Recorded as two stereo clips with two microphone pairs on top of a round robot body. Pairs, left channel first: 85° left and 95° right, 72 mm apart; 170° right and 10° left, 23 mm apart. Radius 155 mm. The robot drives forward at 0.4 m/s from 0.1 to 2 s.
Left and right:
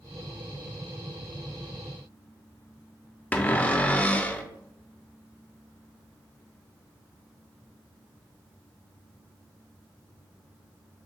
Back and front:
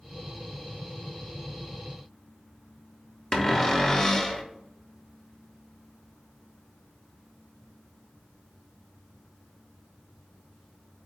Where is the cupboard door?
150° left, 0.8 m.